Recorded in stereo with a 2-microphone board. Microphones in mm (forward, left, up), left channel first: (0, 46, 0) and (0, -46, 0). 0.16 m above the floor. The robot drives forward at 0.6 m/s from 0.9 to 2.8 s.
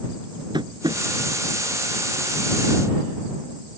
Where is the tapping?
55° right (ahead or behind).